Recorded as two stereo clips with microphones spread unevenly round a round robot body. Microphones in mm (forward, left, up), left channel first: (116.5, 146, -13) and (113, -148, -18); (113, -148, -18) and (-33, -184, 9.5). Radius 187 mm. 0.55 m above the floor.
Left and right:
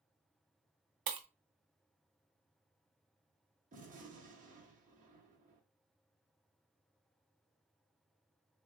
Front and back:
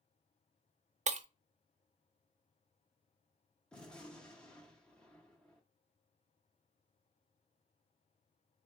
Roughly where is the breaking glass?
Behind right.